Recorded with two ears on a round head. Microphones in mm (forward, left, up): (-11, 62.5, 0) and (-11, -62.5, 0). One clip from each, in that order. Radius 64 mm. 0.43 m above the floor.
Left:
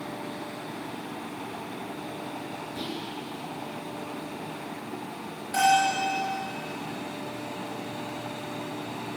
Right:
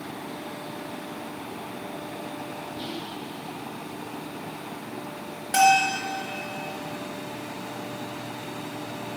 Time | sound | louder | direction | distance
2.8 | whispering | left 1 dB | 55° left (ahead or behind) | 8 m
5.5 | a bell | right 3 dB | 55° right (ahead or behind) | 4 m